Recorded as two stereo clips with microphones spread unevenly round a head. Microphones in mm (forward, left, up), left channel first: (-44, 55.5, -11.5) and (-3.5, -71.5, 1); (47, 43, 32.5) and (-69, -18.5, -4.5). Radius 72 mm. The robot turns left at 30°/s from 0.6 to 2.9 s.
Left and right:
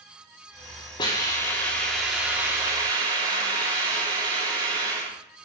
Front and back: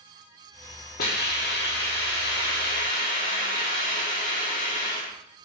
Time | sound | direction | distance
1.0 | a hiss | 45° left | 3.5 m